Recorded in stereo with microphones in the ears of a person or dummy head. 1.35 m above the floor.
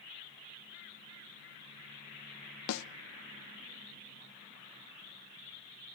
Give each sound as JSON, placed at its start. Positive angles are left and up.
{"t": 2.7, "sound": "a snare drum", "side_deg": 80, "distance_m": 0.5}